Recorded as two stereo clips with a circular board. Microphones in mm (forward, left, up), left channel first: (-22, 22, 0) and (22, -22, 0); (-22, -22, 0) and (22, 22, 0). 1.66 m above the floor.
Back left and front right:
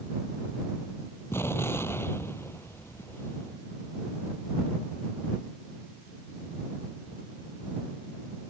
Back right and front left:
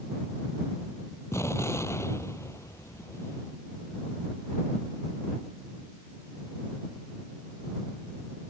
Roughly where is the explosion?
Behind.